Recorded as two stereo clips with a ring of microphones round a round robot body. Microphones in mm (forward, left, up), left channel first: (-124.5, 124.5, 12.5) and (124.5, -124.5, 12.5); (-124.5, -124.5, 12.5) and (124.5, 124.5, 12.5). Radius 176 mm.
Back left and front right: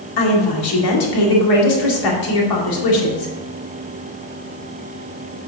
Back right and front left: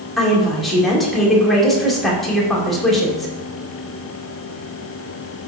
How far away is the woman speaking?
About 2 m.